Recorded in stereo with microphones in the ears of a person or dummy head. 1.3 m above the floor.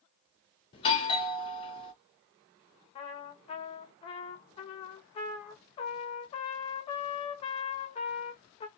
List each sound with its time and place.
0.7 s a doorbell: 30° left (ahead or behind), 0.6 m
3.0 s a trumpet: 30° left (ahead or behind), 0.6 m